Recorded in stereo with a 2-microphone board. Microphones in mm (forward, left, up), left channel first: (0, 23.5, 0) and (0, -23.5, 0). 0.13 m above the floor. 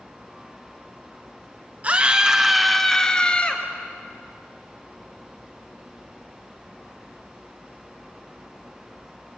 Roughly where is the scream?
Right.